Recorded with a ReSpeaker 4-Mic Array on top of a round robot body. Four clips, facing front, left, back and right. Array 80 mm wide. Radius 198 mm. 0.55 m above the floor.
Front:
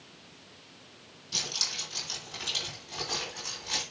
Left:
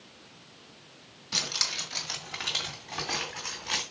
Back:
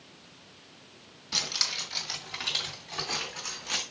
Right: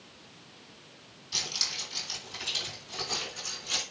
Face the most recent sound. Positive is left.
turn(degrees=95)